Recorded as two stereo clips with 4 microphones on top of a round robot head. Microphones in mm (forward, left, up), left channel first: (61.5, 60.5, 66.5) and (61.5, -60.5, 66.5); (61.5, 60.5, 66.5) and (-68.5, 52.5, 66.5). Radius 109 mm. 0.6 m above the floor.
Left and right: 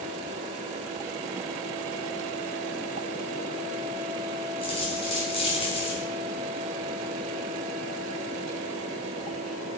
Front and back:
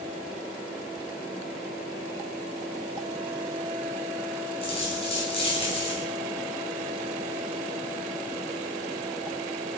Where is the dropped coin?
45° left, 3.5 m.